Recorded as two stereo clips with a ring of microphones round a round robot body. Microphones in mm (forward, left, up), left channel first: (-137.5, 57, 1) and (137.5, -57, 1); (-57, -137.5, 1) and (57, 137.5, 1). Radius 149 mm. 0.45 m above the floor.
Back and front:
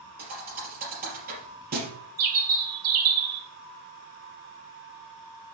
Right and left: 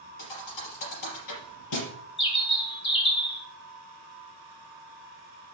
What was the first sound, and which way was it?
A thud, 85° right.